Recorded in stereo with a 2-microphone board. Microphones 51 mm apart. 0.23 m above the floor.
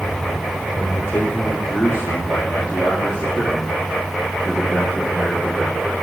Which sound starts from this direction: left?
A man speaking, at 0.8 s.